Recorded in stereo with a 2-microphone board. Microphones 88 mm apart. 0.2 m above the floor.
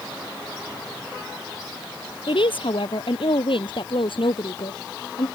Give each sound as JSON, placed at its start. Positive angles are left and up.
{"t": 2.3, "sound": "a woman speaking", "side_deg": 75}